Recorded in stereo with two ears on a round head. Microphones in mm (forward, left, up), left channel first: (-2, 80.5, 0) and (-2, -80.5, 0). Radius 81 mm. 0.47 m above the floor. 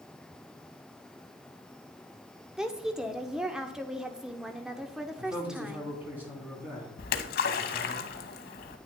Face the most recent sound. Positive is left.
turn(degrees=55)  # may be behind; listen again after turning